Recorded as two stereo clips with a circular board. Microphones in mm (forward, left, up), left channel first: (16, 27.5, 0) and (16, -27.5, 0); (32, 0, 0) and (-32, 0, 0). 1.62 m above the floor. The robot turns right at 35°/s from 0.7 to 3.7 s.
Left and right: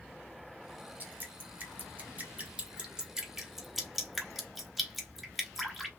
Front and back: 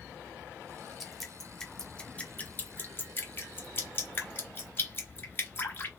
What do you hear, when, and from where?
1.0 s dripping: 90° right, 1.3 m; by 5.9 s 5° left, 1.3 m